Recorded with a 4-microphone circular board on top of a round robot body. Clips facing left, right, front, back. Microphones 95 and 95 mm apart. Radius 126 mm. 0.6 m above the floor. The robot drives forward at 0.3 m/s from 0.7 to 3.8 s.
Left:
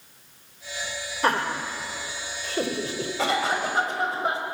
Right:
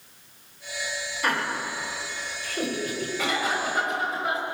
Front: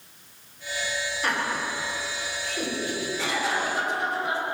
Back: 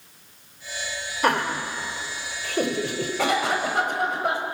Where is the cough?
145° left, 4.5 m; by 4.5 s 150° left, 4.5 m.